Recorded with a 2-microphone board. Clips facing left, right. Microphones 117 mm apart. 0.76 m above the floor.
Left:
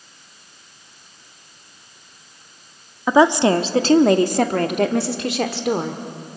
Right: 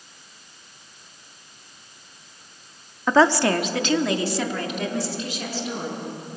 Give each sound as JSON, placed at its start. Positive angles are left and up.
{"t": 3.1, "sound": "a woman speaking", "side_deg": 10, "distance_m": 1.2}